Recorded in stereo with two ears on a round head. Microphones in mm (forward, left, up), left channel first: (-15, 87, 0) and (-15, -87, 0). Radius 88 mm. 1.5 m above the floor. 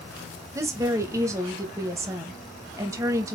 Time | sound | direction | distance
0.6 | a woman speaking | 15° right (ahead or behind) | 1.9 m